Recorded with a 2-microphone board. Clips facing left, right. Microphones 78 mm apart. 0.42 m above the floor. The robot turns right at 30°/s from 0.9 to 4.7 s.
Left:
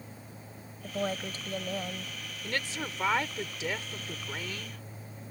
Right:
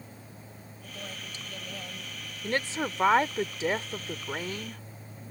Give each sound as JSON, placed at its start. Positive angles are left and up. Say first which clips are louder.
{"t": 0.8, "sound": "a woman speaking", "louder": "left 10 dB", "azimuth_deg": 115}
{"t": 2.4, "sound": "a woman speaking", "louder": "right 5 dB", "azimuth_deg": -125}